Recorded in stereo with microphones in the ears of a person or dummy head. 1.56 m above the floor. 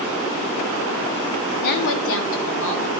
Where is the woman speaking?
45° left (ahead or behind), 0.6 m; by 2.9 s 65° left (ahead or behind), 1.8 m.